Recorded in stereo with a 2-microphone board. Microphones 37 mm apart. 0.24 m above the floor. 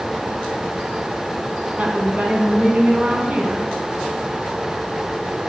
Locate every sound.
1.8 s a woman speaking: 45° right (ahead or behind), 2.5 m